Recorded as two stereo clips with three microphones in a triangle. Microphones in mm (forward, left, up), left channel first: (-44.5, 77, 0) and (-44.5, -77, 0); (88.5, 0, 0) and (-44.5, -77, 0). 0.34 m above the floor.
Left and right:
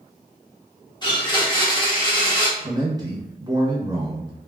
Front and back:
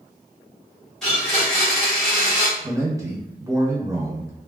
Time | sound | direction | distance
1.0 | a blender | 110° left | 1.6 m
2.6 | a man speaking | 110° right | 1.0 m